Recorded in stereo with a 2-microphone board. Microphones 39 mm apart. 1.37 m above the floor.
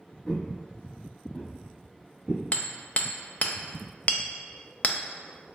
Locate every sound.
0.3 s footsteps: 20° left (ahead or behind), 1.4 m; by 2.4 s 10° right (ahead or behind), 1.5 m
2.5 s hammering: 40° left (ahead or behind), 0.5 m